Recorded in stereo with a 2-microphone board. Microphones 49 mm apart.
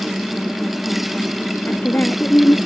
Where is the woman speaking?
40° left (ahead or behind).